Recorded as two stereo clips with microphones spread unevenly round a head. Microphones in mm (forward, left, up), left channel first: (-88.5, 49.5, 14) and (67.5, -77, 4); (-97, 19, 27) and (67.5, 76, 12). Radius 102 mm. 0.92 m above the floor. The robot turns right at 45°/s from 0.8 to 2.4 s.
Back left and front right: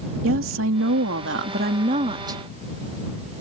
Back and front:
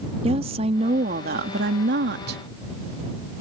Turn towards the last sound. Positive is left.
turn(degrees=35)